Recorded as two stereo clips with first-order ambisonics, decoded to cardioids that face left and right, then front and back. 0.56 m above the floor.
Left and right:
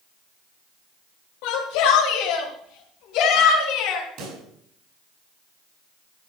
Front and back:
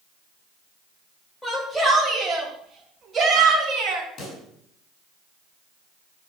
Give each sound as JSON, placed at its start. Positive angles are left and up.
{"t": 1.4, "sound": "a shout", "azimuth_deg": 85, "distance_m": 2.5}
{"t": 4.2, "sound": "a pop", "azimuth_deg": -50, "distance_m": 5.0}